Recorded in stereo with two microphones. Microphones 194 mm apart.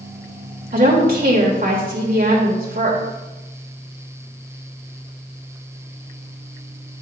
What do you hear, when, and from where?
0.7 s a woman speaking: 45° right (ahead or behind), 1.4 m